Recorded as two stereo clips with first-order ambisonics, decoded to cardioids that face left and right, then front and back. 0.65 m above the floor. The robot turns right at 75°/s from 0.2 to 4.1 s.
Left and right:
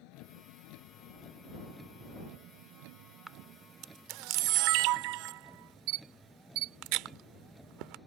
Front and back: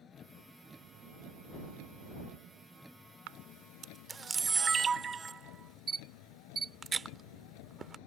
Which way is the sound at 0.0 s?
65° left.